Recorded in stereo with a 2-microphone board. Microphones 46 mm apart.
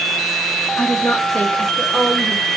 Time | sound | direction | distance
0.8 | a woman speaking | 50° left (ahead or behind) | 1.6 m